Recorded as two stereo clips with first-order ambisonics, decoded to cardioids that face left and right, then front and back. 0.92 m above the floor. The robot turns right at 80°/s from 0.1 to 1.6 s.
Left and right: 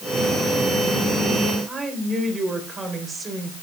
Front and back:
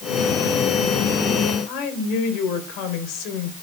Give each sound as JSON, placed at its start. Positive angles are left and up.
{"t": 1.7, "sound": "a woman speaking", "azimuth_deg": -20, "distance_m": 3.5}